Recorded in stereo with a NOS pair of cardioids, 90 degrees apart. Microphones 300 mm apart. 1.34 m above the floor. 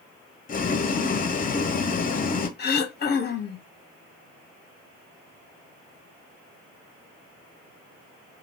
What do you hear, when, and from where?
0.5 s boiling: 30° left, 0.6 m
2.6 s throat clearing: 35° left, 0.7 m